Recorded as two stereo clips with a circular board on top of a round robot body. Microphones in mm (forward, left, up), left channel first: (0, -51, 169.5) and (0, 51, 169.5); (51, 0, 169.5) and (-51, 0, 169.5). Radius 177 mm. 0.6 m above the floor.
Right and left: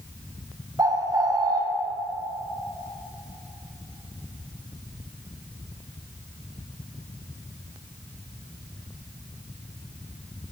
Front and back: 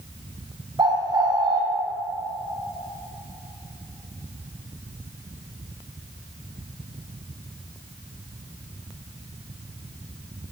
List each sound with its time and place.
0.8 s a bird: 140° left, 0.9 m